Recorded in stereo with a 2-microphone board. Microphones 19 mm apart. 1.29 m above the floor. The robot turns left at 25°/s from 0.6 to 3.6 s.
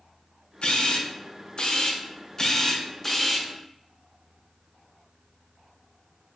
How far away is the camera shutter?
About 0.5 m.